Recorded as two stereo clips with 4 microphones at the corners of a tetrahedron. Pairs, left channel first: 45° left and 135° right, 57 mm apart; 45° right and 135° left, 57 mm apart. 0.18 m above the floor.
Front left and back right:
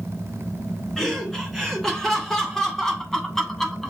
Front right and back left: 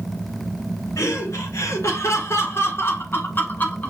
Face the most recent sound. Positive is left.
turn(degrees=-30)